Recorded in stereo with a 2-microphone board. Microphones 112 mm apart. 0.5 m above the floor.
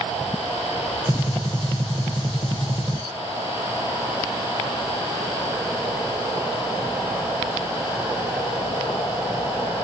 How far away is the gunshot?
About 1.0 m.